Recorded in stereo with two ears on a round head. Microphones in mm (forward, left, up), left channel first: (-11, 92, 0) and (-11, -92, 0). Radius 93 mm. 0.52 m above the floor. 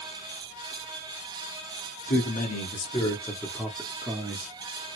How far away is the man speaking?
About 1.2 m.